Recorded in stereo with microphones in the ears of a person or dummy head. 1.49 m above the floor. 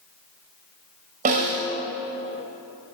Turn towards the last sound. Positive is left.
turn(degrees=-35)  # may be behind; listen again after turning